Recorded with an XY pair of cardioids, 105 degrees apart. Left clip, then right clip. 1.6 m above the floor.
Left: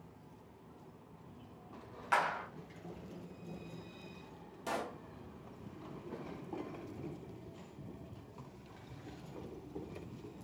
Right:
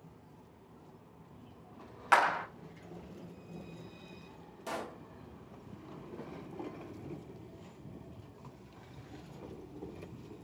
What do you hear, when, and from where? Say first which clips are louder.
2.1 s a clap: right 6 dB; 55° right, 0.5 m
4.7 s a pop: left 1 dB; 10° left, 0.8 m